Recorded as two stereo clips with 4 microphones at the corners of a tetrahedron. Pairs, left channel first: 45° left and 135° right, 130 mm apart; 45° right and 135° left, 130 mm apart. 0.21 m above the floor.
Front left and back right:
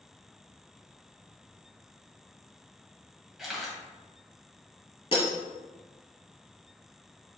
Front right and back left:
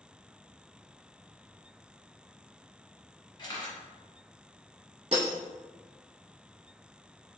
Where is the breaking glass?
95° left, 1.4 m.